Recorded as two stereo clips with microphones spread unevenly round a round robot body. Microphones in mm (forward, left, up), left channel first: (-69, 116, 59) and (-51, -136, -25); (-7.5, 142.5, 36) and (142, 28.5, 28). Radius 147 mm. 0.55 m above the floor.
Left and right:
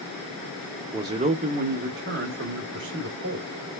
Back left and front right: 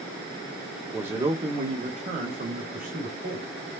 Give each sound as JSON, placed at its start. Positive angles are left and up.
{"t": 0.9, "sound": "a man speaking", "azimuth_deg": -110, "distance_m": 0.7}